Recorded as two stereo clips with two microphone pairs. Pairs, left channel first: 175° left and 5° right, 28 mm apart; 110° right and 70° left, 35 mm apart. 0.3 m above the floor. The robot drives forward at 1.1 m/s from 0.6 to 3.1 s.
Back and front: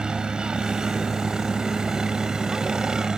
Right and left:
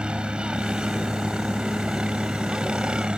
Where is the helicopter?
30° left; by 3.2 s 35° left.